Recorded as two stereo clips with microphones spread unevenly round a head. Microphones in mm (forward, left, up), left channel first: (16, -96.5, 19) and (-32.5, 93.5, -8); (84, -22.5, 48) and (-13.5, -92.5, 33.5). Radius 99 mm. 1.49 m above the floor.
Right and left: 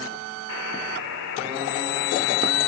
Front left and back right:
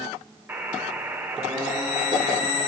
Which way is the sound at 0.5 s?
70° right.